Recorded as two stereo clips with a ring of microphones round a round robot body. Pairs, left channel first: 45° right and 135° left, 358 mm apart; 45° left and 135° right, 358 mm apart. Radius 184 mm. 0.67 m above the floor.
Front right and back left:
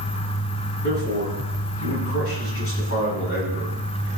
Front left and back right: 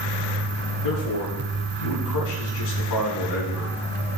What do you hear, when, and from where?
0.8 s a man speaking: 10° left, 6 m